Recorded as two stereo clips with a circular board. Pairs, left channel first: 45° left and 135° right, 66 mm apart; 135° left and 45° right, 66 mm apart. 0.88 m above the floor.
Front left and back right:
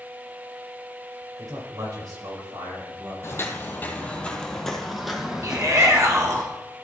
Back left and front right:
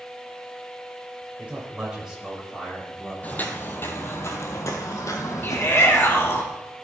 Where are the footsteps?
75° left, 1.2 m; by 6.4 s 160° left, 1.9 m.